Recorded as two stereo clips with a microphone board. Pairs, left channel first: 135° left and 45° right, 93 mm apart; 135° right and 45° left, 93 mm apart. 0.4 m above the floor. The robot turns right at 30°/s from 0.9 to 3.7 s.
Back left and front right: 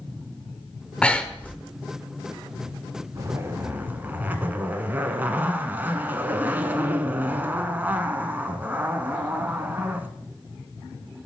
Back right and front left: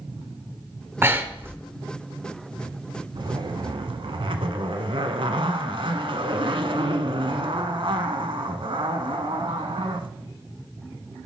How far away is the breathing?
About 0.7 m.